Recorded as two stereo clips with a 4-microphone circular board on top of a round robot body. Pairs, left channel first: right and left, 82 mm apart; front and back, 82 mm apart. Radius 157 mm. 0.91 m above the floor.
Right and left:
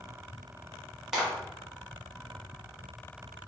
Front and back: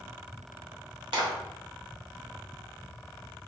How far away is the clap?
About 1.4 m.